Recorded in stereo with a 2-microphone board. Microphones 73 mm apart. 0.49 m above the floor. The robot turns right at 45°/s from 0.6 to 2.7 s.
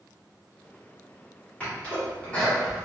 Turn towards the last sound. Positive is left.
turn(degrees=15)  # may be behind; listen again after turning